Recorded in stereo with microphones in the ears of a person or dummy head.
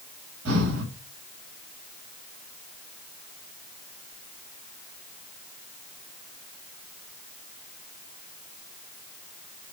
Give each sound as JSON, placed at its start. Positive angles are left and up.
{"t": 0.5, "sound": "breathing", "side_deg": -75, "distance_m": 5.5}